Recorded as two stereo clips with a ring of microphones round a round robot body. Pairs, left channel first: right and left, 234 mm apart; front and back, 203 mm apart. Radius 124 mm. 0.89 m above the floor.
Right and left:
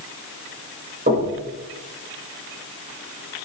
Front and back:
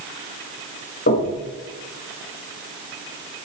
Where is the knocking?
35° left, 4.5 m.